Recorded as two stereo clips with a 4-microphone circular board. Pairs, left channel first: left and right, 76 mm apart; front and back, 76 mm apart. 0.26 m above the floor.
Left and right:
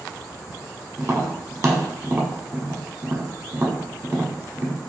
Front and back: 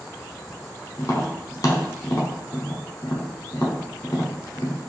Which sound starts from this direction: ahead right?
Tapping, at 1.0 s.